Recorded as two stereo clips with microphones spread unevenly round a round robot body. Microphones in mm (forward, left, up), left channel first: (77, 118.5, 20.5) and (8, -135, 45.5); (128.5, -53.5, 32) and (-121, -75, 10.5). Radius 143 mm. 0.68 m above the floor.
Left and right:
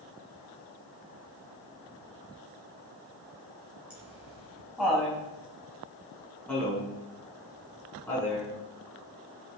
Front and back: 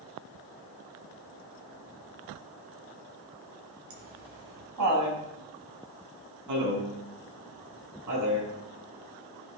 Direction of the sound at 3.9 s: 170° left.